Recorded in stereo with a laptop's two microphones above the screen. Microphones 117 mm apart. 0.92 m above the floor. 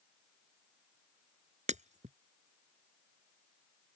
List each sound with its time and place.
1.7 s breaking glass: 80° right